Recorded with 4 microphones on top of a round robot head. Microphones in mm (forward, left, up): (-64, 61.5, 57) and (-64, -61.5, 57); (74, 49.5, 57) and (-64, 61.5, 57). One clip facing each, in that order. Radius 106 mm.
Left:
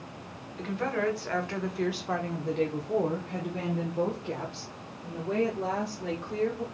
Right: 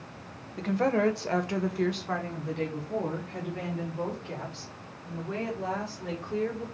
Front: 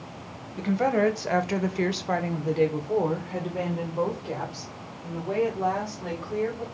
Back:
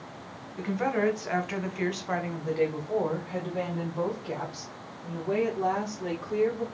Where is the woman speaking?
60° right, 0.9 m; by 6.7 s 85° left, 2.5 m.